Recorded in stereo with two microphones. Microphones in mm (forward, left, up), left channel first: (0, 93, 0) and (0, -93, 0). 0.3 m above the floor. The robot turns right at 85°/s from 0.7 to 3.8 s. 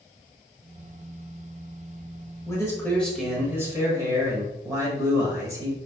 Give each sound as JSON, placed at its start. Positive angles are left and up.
{"t": 2.5, "sound": "a man speaking", "side_deg": 20, "distance_m": 0.9}